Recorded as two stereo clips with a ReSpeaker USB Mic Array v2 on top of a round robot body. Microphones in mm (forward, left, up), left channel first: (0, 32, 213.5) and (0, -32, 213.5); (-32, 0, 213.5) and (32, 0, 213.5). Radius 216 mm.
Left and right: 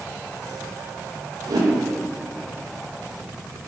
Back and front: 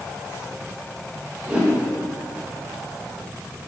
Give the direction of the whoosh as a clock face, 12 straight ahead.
2 o'clock.